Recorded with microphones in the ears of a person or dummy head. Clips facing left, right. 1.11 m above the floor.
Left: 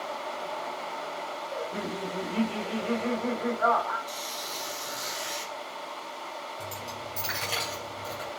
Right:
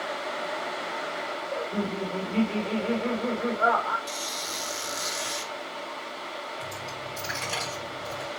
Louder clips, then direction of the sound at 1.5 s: Right 4 dB; 35° right (ahead or behind).